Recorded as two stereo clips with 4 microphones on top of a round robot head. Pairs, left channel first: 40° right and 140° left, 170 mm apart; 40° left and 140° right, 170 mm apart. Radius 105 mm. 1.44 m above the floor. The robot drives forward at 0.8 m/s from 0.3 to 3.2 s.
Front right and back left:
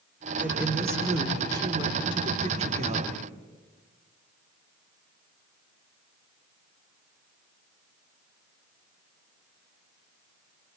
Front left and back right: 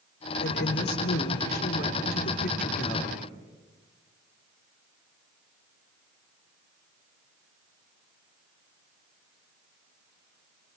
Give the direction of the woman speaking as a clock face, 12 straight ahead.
10 o'clock.